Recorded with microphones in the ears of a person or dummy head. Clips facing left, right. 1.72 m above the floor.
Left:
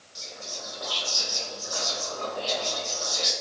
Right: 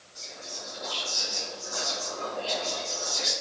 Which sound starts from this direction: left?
Whispering, at 0.1 s.